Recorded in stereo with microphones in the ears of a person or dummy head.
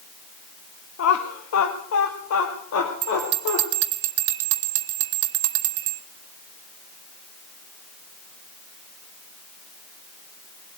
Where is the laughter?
85° left, 1.1 m.